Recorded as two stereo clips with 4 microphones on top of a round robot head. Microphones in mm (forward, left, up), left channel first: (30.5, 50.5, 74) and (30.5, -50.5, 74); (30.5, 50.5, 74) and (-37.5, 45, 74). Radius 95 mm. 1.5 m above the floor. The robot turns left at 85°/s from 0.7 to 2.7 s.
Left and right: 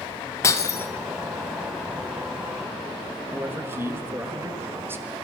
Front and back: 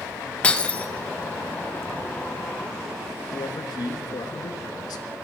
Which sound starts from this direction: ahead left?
Breaking glass, at 0.4 s.